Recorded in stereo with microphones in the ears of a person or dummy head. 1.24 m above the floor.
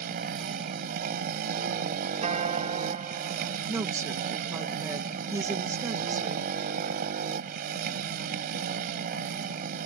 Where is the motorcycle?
55° right (ahead or behind).